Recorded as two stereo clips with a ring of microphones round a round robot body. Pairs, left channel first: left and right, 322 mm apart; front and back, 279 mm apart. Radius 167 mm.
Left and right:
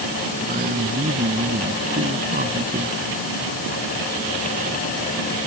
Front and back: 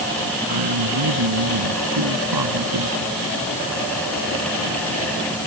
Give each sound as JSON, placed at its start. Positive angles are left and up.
{"t": 0.5, "sound": "a man speaking", "azimuth_deg": -155}